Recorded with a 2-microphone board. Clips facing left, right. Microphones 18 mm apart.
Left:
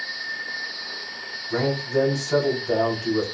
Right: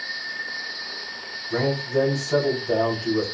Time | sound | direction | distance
1.5 | a man speaking | 25° left (ahead or behind) | 1.3 m